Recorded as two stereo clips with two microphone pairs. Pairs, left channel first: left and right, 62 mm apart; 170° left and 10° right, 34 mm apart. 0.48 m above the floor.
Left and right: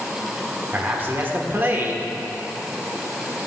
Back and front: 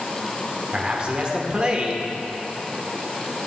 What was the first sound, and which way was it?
A man speaking, 55° right.